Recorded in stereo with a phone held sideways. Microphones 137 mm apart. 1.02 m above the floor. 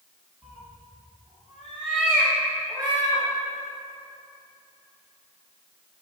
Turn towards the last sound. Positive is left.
turn(degrees=10)  # may be behind; listen again after turning